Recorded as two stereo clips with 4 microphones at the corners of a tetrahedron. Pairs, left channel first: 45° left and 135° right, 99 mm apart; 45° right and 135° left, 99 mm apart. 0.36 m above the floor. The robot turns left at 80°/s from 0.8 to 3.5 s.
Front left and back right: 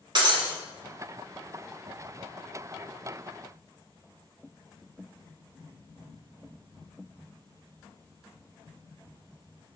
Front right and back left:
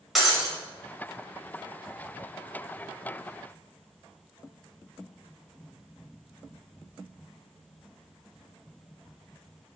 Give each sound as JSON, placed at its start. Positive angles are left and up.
{"t": 0.1, "sound": "breaking glass", "azimuth_deg": -135, "distance_m": 0.9}